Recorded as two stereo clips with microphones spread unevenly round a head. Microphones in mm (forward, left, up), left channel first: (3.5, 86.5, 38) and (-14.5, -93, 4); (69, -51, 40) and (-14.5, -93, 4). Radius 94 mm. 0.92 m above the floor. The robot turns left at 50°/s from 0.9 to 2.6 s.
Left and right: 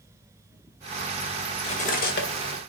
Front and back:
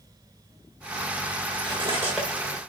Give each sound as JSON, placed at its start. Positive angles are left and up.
{"t": 1.6, "sound": "cutlery clinking", "azimuth_deg": 145, "distance_m": 1.9}